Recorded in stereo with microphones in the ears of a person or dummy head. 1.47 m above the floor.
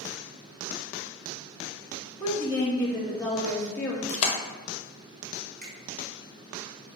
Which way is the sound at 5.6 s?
45° right (ahead or behind).